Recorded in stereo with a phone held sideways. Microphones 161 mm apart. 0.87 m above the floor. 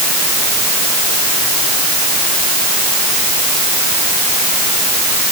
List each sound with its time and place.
Only background noise.